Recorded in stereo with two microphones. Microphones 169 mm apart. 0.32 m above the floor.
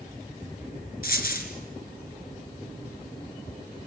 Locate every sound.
1.0 s a dropped coin: 65° left (ahead or behind), 2.5 m